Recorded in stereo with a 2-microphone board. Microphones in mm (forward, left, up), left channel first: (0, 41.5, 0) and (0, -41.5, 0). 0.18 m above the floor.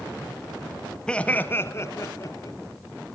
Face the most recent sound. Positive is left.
turn(degrees=40)  # may be behind; listen again after turning